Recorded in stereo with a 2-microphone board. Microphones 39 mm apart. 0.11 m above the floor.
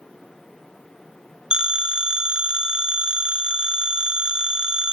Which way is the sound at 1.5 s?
25° right (ahead or behind).